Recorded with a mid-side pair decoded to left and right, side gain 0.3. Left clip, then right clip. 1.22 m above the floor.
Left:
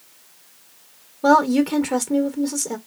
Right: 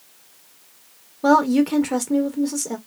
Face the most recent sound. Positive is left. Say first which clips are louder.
# left 1 dB
turn(degrees=0)